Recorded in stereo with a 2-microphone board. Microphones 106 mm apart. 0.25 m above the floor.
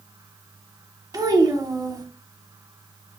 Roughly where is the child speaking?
Right.